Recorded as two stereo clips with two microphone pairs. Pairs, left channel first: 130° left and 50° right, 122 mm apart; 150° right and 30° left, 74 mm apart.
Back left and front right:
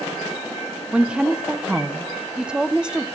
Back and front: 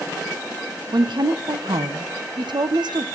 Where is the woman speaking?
35° left, 1.0 m.